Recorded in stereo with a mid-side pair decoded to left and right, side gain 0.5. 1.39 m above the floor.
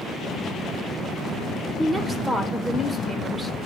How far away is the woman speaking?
About 1.8 m.